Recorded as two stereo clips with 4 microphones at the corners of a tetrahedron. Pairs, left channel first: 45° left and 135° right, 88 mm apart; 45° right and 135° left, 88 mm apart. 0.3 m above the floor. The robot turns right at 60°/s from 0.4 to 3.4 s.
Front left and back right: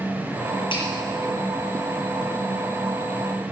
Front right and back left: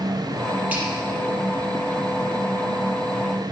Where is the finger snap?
60° left, 6 m; by 0.9 s 70° left, 6 m.